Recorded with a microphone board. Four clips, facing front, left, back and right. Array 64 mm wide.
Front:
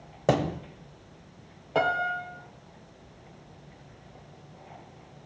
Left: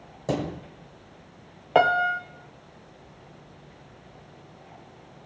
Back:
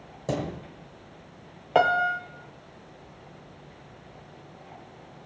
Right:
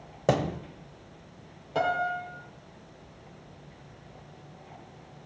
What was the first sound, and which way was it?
A thud, 40° right.